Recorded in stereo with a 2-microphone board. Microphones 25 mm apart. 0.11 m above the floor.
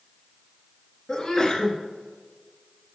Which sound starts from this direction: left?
A sneeze, at 1.1 s.